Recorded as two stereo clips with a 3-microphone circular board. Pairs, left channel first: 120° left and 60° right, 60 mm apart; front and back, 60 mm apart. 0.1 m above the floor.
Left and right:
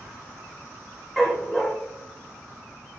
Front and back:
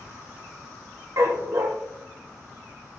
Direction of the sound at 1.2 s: 150° right.